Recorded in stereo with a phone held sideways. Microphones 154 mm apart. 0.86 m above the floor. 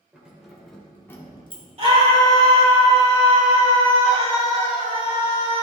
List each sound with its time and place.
0.1 s keys jangling: 10° right (ahead or behind), 2.5 m; by 1.6 s 40° left (ahead or behind), 1.2 m
1.8 s a scream: 45° right (ahead or behind), 3 m